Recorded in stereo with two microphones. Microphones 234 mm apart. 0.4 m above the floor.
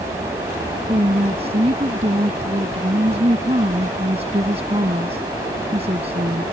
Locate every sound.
0.9 s a woman speaking: 25° right (ahead or behind)